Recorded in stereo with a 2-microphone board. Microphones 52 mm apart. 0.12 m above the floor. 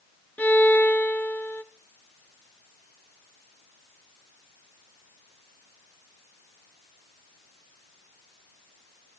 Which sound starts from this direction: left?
A violin, at 0.4 s.